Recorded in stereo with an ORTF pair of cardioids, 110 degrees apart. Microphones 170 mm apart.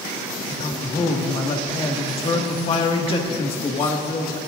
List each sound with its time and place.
0.5 s a man speaking: 35° left, 1.8 m